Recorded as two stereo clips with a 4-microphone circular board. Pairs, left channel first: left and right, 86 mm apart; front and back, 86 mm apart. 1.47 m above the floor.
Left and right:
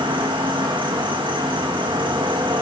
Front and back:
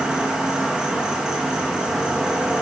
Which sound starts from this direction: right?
An insect, at 0.0 s.